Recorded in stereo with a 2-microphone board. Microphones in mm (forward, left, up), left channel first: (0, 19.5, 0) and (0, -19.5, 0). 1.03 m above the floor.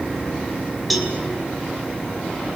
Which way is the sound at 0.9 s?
Centre (ahead or behind).